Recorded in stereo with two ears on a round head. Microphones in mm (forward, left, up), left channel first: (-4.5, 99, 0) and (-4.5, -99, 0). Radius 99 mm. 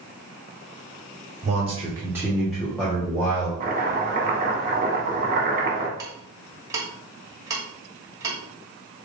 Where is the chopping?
40° right (ahead or behind), 1.2 m.